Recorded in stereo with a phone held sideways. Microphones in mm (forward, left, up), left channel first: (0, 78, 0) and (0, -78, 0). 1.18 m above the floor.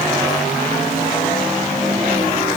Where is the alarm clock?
No alarm clock in this recording.